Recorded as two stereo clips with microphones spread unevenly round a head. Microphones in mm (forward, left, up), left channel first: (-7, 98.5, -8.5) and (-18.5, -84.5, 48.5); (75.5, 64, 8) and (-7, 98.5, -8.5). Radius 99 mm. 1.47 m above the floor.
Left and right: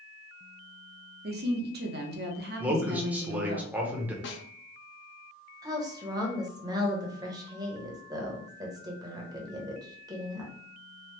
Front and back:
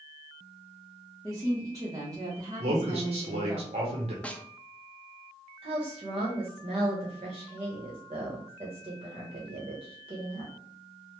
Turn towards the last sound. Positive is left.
turn(degrees=-155)